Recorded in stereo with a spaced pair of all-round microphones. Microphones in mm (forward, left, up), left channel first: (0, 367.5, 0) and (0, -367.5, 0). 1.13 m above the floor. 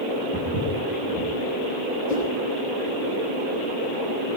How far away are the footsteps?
About 10 m.